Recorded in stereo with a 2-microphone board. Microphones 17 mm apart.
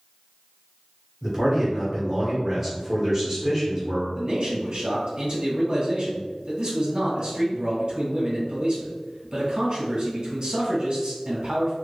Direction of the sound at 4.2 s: 80° right.